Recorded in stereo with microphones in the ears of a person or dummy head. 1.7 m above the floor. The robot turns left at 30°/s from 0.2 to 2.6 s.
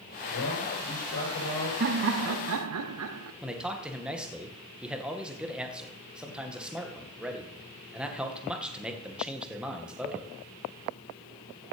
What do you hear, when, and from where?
0.3 s a man speaking: 90° left, 8.5 m; by 1.7 s 50° left, 8.5 m
1.8 s laughter: 50° right (ahead or behind), 0.9 m; by 3.3 s 75° right (ahead or behind), 0.9 m
3.4 s a man speaking: 5° right (ahead or behind), 1.8 m